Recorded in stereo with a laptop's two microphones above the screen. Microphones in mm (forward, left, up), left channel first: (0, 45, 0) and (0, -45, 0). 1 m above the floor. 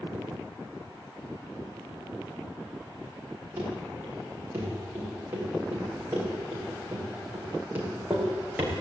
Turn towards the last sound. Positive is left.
turn(degrees=-20)  # may be behind; listen again after turning